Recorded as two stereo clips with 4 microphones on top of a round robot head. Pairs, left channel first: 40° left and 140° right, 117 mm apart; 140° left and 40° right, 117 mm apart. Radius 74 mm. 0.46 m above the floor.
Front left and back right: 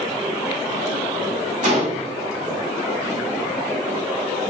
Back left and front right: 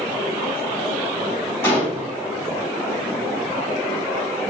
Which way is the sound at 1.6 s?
145° right.